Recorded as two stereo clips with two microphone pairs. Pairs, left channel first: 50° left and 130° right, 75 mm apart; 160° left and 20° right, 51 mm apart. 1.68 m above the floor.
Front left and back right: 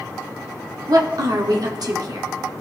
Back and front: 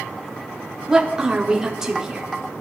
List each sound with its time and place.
0.9 s a woman speaking: 100° right, 1.0 m